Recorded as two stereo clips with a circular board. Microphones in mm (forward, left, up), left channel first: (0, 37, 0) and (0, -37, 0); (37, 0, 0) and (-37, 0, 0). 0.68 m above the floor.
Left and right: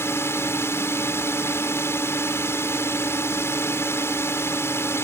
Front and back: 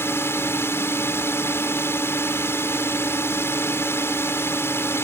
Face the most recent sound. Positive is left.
turn(degrees=45)